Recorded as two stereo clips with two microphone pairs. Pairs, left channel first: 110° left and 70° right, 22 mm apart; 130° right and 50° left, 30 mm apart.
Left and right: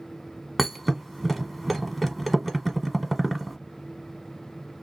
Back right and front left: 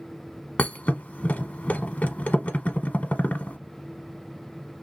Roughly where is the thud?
Behind.